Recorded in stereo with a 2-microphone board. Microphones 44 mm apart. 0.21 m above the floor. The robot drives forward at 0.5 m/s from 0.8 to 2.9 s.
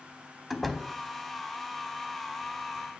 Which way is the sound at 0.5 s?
Centre (ahead or behind).